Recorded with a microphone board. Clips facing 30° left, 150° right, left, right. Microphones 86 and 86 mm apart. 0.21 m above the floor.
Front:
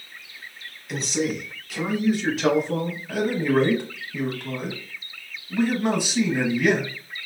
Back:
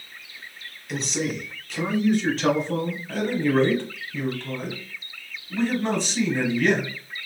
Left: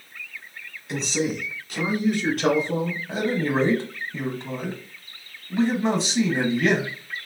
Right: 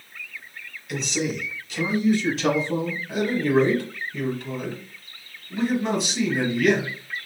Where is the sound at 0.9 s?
120° left, 1.2 m; by 3.0 s 110° left, 3 m.